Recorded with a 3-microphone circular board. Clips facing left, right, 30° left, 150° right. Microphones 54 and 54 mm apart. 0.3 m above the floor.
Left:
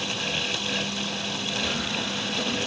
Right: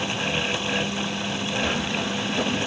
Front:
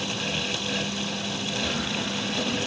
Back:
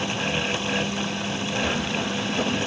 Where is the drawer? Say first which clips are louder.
Right 3 dB, back 3 dB; 60° right, 8 m.